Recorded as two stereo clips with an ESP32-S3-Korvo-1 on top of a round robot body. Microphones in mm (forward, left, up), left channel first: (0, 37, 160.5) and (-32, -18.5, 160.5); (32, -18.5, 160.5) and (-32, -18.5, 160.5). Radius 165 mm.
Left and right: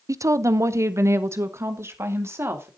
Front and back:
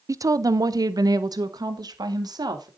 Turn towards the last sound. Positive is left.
turn(degrees=-170)